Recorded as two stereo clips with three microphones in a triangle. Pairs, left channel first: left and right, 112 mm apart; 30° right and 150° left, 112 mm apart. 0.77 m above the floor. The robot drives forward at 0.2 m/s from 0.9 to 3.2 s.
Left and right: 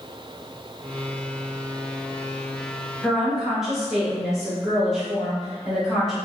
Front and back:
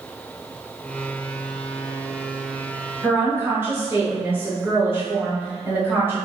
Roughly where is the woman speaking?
Behind.